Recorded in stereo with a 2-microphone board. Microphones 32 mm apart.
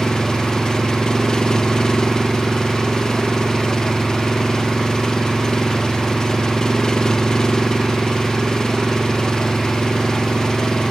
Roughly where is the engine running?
Centre.